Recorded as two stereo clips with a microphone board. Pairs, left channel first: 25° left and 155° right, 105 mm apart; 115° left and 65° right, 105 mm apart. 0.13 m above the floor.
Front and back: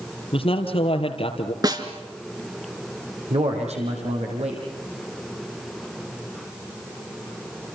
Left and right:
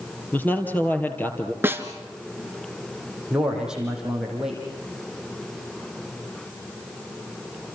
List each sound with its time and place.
0.3 s a man speaking: 40° left, 3 m
1.6 s a snare drum: 130° right, 1.9 m
3.3 s a man speaking: 150° right, 7 m